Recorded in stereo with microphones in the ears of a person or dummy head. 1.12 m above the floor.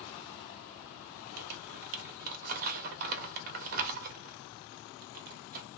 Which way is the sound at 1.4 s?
45° right (ahead or behind).